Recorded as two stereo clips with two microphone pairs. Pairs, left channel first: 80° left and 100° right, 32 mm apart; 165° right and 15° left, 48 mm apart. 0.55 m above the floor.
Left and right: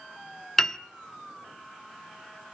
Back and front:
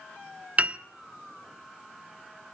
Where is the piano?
15° left, 0.9 m.